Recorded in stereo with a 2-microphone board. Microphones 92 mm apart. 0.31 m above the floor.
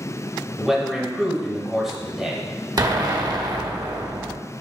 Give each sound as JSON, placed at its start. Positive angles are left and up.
{"t": 0.6, "sound": "a man speaking", "side_deg": -5, "distance_m": 1.0}
{"t": 2.8, "sound": "an explosion", "side_deg": -45, "distance_m": 0.6}